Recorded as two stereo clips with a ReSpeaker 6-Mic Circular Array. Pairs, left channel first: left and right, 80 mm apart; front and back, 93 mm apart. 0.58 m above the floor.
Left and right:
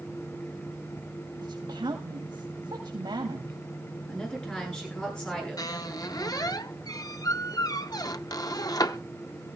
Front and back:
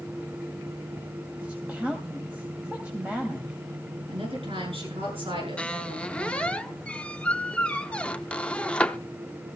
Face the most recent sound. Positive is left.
turn(degrees=75)